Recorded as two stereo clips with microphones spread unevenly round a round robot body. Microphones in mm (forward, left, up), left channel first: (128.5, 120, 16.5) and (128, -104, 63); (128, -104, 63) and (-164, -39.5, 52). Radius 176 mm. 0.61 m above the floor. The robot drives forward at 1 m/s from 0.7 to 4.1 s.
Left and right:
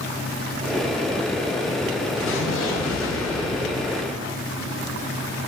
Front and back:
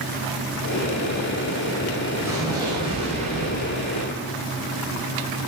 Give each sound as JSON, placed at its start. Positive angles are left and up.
{"t": 2.2, "sound": "an explosion", "azimuth_deg": 85, "distance_m": 4.5}